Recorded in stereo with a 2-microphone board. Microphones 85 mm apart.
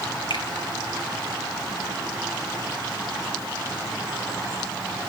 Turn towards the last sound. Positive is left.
turn(degrees=70)  # may be behind; listen again after turning